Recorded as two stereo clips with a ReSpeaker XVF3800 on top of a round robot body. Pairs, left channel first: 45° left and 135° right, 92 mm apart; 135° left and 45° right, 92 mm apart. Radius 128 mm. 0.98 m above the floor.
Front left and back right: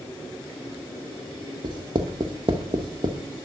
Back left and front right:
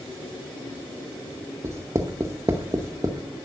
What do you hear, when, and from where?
1.6 s writing: 100° right, 0.6 m